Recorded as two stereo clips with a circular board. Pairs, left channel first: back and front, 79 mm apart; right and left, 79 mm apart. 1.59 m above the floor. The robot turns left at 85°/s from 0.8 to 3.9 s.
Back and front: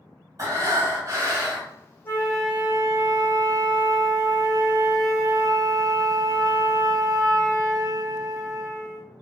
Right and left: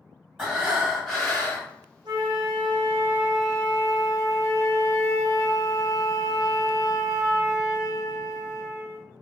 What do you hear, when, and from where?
0.4 s breathing: 15° left, 1.2 m; by 1.7 s 60° right, 1.2 m
2.0 s a flute: 115° left, 0.6 m; by 9.0 s 40° right, 0.6 m